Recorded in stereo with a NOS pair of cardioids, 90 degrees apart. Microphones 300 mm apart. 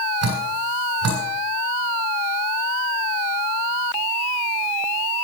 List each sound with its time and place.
0.2 s dripping: 60° right, 8 m